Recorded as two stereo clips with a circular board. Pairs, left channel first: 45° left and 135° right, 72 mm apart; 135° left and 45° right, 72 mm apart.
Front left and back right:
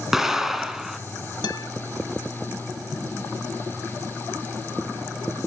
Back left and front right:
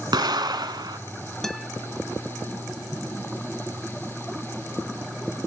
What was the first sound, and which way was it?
An explosion, 50° right.